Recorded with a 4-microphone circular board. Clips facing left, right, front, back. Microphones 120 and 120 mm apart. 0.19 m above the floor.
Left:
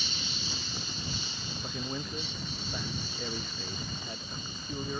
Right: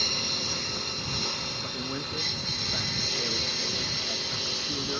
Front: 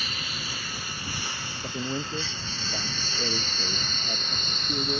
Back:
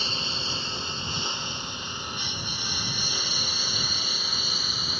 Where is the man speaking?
5° right.